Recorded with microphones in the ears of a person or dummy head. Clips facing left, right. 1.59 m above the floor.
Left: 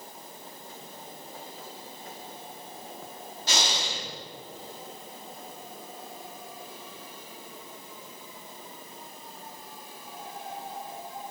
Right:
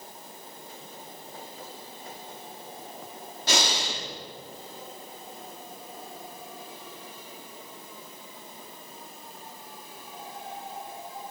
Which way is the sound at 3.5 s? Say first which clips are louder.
Right 3 dB; 50° right (ahead or behind).